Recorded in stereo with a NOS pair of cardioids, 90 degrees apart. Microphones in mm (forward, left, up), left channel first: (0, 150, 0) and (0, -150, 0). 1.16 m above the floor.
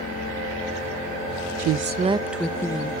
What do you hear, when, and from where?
1.6 s a woman speaking: 60° right, 0.6 m; by 2.9 s 15° left, 1.1 m